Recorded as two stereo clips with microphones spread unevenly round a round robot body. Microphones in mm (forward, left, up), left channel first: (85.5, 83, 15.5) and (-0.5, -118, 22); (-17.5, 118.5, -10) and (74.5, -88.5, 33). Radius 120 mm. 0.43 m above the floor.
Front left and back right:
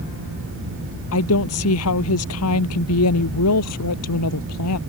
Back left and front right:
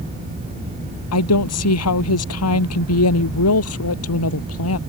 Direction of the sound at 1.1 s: 100° left.